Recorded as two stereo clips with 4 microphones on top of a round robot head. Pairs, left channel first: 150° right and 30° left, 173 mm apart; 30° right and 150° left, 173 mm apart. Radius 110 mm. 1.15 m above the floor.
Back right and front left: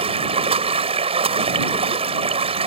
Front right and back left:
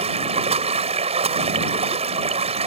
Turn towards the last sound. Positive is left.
turn(degrees=90)